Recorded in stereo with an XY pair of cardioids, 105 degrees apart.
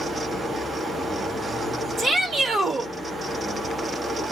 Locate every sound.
0.0 s a fan: 30° right, 1.4 m
2.0 s a shout: 65° right, 2 m